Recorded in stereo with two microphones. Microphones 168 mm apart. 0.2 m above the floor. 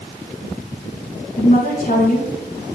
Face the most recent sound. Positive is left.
turn(degrees=45)  # may be behind; listen again after turning